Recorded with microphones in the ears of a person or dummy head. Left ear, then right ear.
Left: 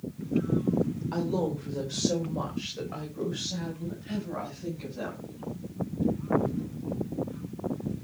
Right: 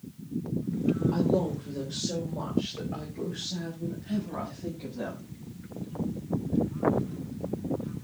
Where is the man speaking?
45° left (ahead or behind), 4 m; by 5.3 s 35° left (ahead or behind), 7.5 m.